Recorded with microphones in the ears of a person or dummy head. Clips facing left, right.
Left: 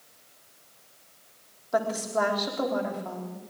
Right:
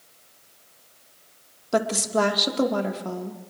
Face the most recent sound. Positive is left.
turn(degrees=-40)  # may be behind; listen again after turning